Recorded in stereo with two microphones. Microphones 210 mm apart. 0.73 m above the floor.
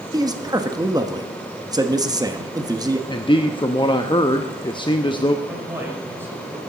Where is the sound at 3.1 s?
20° left (ahead or behind), 0.7 m.